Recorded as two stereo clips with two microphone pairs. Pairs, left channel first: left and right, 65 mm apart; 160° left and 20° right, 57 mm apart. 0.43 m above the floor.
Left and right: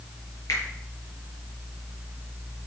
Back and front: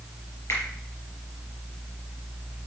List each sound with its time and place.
0.5 s a finger snap: 120° left, 6 m